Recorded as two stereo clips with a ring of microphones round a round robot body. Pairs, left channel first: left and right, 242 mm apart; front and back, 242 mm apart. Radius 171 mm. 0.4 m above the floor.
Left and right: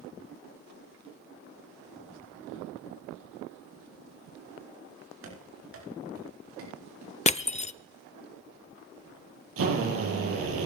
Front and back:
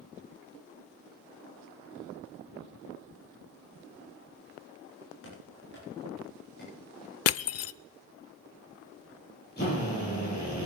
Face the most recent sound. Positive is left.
turn(degrees=-65)